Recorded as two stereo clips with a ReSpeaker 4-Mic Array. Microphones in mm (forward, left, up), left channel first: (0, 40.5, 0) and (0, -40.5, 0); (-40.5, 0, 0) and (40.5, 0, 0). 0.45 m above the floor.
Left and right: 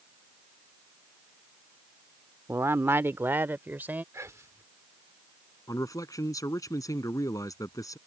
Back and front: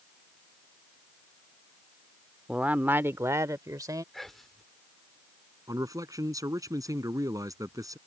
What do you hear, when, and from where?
2.5 s a man speaking: 65° right; by 4.0 s 25° right
4.1 s whispering: 90° right
5.7 s a man speaking: 45° left